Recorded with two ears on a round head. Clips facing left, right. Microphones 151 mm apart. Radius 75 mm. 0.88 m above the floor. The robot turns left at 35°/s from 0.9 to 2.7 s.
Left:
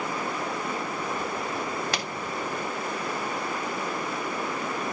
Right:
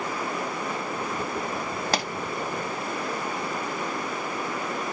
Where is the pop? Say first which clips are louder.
Right 5 dB; 30° right (ahead or behind), 0.8 m; by 2.1 s 35° right (ahead or behind), 0.8 m.